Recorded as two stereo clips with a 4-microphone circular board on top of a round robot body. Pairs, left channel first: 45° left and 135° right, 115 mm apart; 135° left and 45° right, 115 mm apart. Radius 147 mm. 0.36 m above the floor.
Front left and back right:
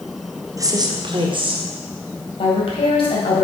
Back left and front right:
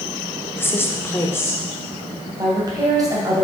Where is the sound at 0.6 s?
170° right, 1.2 m; by 1.6 s 160° right, 1.9 m.